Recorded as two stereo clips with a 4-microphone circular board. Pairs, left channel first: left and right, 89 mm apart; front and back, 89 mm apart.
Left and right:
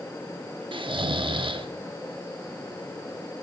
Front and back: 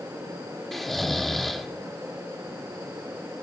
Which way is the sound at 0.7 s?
90° right.